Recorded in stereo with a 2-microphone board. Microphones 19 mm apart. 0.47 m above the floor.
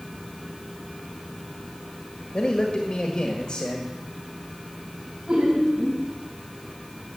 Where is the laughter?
45° right (ahead or behind), 3.5 m.